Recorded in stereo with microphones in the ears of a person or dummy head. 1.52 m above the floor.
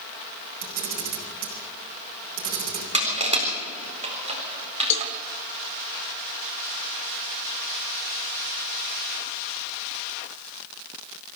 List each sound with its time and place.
0.6 s a camera shutter: 55° right (ahead or behind), 4.5 m
2.9 s crushing: 40° right (ahead or behind), 4 m
4.9 s a cowbell: 65° left (ahead or behind), 0.8 m